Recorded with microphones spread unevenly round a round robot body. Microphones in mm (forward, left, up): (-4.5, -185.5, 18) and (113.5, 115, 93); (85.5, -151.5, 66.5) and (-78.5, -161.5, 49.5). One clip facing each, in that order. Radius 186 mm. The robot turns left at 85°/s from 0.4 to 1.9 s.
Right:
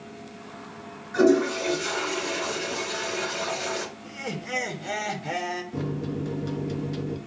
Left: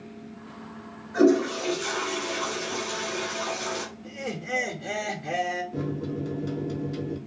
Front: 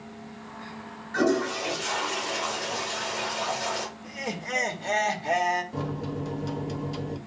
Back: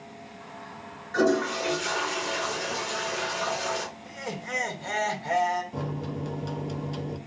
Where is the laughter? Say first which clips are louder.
Left 1 dB, front 2 dB; 65° right, 1.4 m.